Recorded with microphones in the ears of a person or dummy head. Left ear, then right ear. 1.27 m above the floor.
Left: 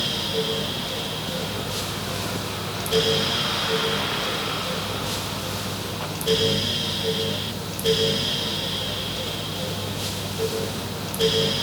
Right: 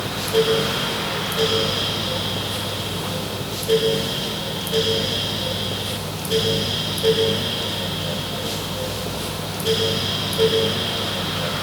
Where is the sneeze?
No sneeze in this recording.